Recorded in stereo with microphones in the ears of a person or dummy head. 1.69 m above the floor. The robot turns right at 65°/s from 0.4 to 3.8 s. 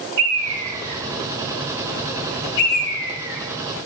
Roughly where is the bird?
Right.